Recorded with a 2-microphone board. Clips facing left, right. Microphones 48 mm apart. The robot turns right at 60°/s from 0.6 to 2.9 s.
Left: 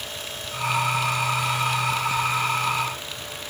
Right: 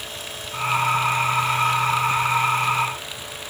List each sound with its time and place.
Only background noise.